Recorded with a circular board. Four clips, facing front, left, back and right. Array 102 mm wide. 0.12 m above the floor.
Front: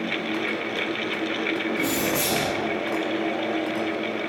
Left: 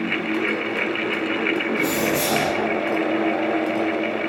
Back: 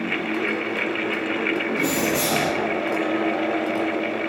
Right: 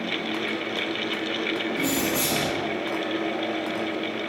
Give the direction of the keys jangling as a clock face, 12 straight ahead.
7 o'clock.